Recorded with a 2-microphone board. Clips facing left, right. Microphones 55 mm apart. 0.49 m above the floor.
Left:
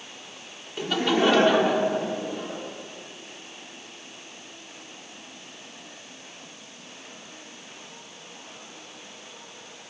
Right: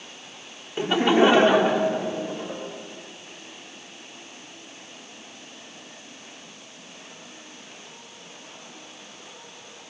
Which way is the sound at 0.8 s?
20° right (ahead or behind).